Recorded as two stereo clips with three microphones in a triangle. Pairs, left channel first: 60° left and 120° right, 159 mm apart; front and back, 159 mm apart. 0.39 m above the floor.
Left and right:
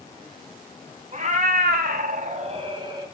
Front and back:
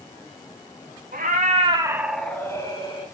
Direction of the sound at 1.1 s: 160° right.